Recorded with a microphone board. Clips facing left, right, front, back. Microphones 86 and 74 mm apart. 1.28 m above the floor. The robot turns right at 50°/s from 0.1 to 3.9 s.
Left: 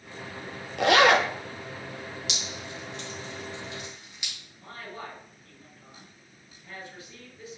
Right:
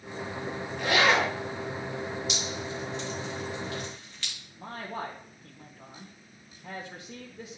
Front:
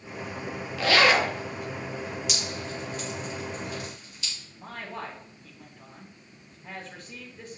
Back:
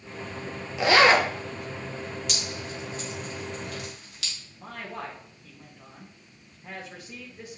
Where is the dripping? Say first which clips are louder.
Right 4 dB, front 1 dB; 85° left, 2.5 m; by 4.3 s 165° left, 2.5 m.